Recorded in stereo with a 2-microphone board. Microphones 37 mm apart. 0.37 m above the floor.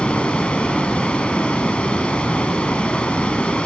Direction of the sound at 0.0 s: 30° left (ahead or behind).